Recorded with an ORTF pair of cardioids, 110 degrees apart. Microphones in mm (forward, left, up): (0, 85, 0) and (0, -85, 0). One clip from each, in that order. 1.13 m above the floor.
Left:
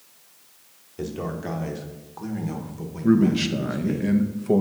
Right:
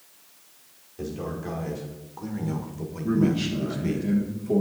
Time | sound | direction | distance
1.0 | a man speaking | 35° left | 1.7 m
3.0 | a man speaking | 50° left | 1.0 m